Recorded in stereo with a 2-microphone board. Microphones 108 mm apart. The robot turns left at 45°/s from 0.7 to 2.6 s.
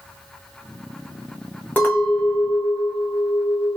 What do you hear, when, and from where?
1.8 s a clink: 165° left, 1.0 m; by 3.8 s 125° left, 1.0 m